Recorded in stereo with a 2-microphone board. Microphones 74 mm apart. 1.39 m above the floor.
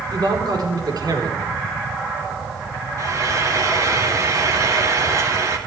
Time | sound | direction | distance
0.1 | a man speaking | 70° right (ahead or behind) | 4 m
3.0 | frying | 50° right (ahead or behind) | 2 m